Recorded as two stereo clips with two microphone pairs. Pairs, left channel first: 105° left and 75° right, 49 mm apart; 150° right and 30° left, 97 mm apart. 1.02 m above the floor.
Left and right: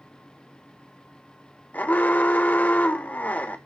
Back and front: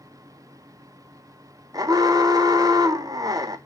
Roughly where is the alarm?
Ahead left.